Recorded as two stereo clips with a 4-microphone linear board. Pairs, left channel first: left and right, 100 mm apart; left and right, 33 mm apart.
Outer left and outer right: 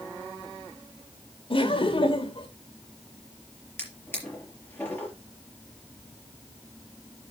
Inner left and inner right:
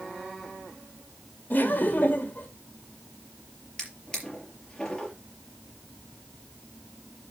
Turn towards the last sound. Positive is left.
turn(degrees=20)  # may be behind; listen again after turning